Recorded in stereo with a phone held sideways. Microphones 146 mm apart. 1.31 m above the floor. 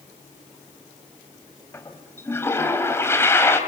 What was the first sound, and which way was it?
A toilet flushing, 15° left (ahead or behind).